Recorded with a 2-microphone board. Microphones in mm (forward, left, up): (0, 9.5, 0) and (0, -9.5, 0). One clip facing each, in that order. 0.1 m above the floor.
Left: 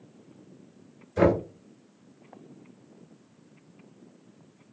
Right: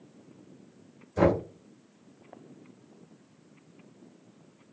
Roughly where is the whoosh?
I don't hear a whoosh.